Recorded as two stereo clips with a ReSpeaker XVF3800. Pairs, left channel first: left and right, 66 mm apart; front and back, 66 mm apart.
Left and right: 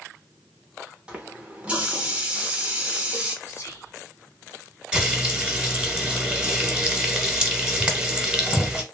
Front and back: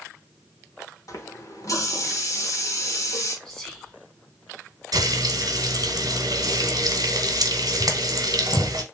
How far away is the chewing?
I don't hear chewing.